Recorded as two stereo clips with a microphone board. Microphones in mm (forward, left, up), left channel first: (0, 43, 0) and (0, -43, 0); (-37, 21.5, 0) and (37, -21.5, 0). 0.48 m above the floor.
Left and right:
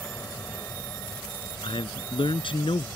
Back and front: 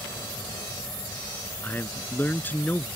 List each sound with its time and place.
0.0 s an aircraft: 150° left
1.6 s a man speaking: 80° left